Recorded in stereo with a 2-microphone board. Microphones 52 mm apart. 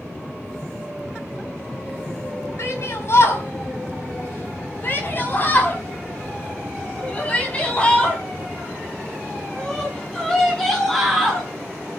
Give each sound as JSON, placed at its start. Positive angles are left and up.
{"t": 2.6, "sound": "a shout", "side_deg": 60, "distance_m": 4.5}